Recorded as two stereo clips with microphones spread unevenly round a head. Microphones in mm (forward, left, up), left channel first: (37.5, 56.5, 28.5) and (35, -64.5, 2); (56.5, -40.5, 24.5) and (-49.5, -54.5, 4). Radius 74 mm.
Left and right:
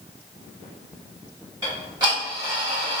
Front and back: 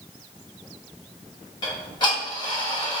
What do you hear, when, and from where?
1.6 s ticking: 35° right, 1.7 m